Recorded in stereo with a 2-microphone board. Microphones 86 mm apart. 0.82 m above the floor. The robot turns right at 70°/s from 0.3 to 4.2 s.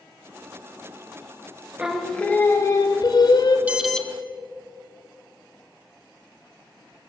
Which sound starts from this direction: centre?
An alarm, at 3.7 s.